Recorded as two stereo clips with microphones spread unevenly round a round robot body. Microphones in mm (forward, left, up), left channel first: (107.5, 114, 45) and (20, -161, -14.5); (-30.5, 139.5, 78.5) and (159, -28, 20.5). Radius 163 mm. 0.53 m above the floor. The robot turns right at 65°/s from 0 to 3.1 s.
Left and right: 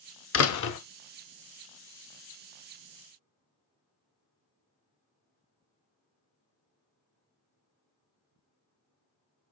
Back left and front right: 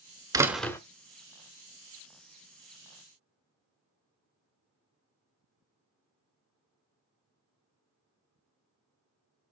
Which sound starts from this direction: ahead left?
A door slam, at 0.3 s.